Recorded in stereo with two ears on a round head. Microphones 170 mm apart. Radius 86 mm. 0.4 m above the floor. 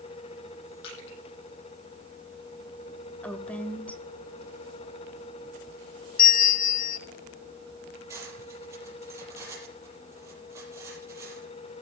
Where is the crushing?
70° left (ahead or behind), 8.5 m.